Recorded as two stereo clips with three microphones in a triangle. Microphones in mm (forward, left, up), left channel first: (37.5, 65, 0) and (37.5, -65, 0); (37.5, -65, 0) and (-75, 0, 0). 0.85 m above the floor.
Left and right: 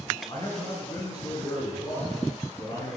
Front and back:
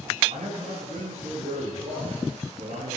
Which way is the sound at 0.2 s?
145° left.